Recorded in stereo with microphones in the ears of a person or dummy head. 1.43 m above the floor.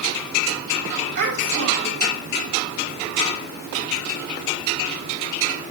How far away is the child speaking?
About 6.5 m.